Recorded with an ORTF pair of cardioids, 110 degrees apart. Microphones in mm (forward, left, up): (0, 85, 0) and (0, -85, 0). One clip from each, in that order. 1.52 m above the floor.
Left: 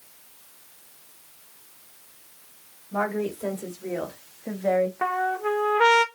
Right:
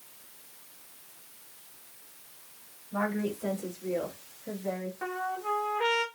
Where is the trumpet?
55° left, 0.6 m.